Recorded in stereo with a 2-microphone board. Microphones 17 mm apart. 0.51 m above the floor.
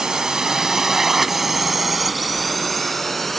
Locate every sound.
0.0 s a drone: 45° right (ahead or behind); by 3.4 s 15° left (ahead or behind)